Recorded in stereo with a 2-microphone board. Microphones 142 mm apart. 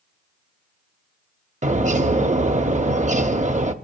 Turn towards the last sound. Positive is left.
turn(degrees=-55)  # may be behind; listen again after turning